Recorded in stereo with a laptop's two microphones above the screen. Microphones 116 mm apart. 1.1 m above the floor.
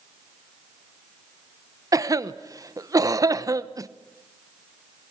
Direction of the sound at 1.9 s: 30° right (ahead or behind).